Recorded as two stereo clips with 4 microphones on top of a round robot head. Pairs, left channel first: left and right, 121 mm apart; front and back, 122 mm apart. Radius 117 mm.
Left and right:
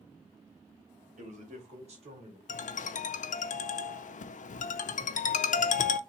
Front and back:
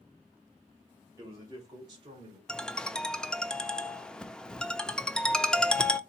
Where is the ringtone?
85° left, 0.6 m.